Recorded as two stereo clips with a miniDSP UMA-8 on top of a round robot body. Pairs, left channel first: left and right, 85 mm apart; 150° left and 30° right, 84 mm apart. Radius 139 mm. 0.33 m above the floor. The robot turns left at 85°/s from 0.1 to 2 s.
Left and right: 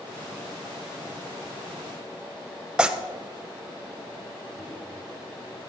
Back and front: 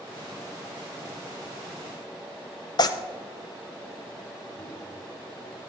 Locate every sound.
2.8 s tearing paper: 170° right, 0.5 m
4.6 s a microwave: 175° right, 4 m